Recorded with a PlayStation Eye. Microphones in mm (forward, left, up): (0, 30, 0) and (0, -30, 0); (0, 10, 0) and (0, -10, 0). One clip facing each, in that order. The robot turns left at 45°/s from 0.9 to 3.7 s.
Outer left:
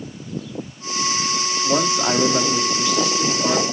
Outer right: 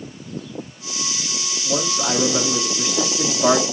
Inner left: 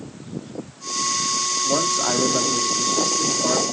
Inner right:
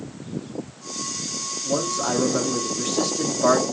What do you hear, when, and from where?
1.6 s a man speaking: 30° left, 1.8 m; by 3.6 s 60° right, 1.8 m